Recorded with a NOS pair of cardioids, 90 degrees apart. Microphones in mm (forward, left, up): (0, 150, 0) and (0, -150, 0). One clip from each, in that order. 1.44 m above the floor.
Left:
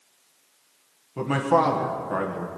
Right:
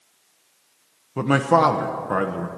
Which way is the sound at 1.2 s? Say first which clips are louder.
Right 4 dB; 35° right.